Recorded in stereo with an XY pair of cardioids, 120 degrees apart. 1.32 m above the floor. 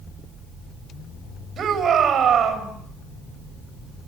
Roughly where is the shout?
Ahead right.